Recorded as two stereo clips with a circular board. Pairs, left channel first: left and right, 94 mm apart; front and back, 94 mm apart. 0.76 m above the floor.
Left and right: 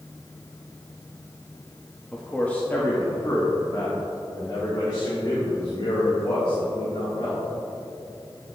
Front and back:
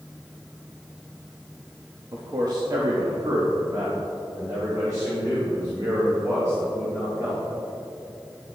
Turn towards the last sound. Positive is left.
turn(degrees=125)